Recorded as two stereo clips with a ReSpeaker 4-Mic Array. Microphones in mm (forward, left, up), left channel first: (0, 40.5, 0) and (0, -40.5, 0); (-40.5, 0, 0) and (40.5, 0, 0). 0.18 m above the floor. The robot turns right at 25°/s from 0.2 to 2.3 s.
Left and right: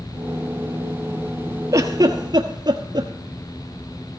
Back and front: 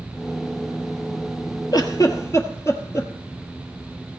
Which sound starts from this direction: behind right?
A giggle, at 1.7 s.